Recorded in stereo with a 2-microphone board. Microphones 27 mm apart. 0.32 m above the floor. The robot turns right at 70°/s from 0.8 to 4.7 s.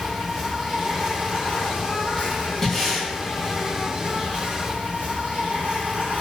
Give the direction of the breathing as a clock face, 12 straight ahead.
7 o'clock.